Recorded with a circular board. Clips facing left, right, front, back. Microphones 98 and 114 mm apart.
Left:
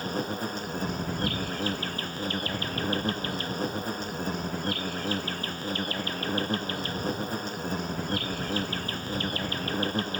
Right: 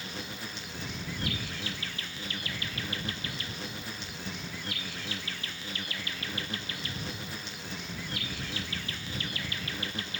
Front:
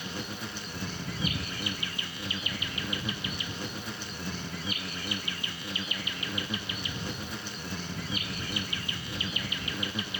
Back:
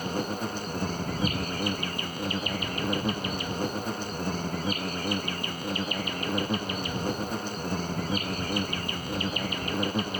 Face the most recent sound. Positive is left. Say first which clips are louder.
# left 10 dB, back 8 dB
turn(degrees=135)